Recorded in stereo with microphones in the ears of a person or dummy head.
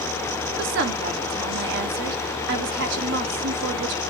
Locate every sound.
0.6 s a woman speaking: 60° right (ahead or behind), 1.2 m